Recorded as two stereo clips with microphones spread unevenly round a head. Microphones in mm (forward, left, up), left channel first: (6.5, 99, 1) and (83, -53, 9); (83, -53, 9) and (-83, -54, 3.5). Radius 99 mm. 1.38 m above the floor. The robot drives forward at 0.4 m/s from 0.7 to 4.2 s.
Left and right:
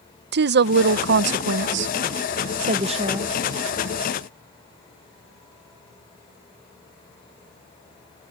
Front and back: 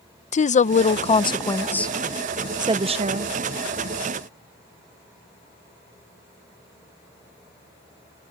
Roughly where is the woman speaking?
Ahead right.